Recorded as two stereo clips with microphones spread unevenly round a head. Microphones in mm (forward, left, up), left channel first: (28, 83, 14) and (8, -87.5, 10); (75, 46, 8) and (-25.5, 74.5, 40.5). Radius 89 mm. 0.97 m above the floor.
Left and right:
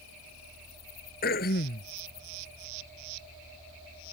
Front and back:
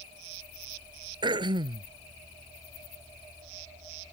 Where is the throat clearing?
125° left.